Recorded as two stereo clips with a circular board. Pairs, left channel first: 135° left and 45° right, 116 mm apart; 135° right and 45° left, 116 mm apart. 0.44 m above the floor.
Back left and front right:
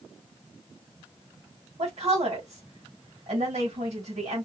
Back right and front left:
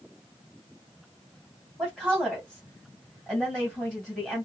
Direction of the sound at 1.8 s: 40° right.